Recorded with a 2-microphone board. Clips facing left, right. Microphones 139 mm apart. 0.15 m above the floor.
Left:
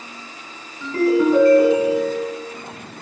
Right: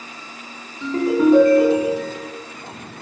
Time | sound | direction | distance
0.8 | a ringtone | 20° right (ahead or behind) | 0.7 m